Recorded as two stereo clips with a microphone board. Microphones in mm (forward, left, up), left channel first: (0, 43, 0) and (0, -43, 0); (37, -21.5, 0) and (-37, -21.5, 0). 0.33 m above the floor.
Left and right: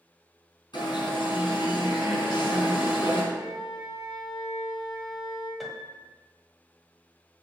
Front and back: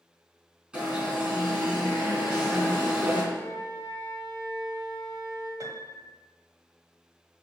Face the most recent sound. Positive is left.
turn(degrees=180)